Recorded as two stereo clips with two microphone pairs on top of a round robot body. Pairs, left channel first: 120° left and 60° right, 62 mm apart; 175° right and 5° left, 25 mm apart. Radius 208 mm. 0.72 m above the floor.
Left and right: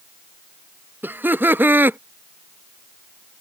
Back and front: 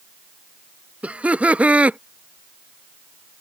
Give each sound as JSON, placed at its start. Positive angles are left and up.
{"t": 1.0, "sound": "laughter", "azimuth_deg": -5}